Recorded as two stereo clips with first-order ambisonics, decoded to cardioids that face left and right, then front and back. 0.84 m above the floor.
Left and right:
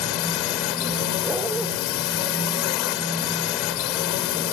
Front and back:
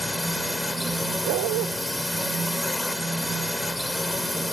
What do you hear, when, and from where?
0.0 s a drone: 85° left
1.2 s a dog barking: 170° right